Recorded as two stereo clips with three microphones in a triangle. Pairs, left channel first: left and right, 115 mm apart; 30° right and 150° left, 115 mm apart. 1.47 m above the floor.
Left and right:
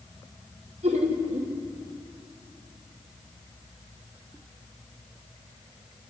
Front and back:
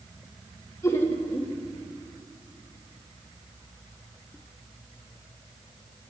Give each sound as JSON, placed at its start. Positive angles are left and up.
{"t": 0.8, "sound": "laughter", "azimuth_deg": -95, "distance_m": 3.0}